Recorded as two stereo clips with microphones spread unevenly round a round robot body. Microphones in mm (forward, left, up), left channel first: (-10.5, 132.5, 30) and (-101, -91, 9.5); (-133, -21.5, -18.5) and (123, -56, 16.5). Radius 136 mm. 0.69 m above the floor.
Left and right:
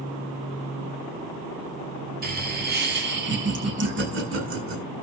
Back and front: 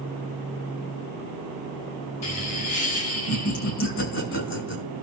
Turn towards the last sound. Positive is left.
turn(degrees=-140)